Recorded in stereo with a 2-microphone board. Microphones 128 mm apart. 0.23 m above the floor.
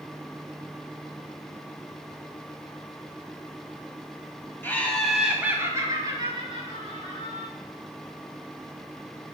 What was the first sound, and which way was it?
Laughter, 15° left (ahead or behind).